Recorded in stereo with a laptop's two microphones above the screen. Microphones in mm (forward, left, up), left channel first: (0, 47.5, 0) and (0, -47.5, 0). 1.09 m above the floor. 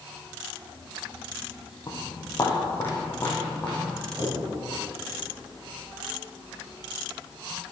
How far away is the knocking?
About 4.5 m.